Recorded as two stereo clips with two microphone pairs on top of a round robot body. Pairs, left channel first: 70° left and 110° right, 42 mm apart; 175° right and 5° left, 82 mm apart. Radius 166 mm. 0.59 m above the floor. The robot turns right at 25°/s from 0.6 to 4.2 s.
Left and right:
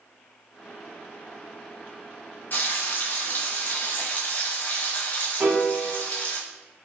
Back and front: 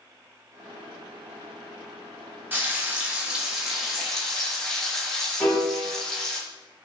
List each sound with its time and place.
2.5 s frying: 60° left, 1.5 m; by 6.4 s 100° left, 1.5 m
5.4 s a piano: 80° right, 1.5 m